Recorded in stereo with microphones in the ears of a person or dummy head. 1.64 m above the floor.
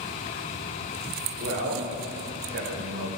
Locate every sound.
1.4 s a man speaking: 70° right (ahead or behind), 2.5 m; by 3.1 s 45° right (ahead or behind), 1.5 m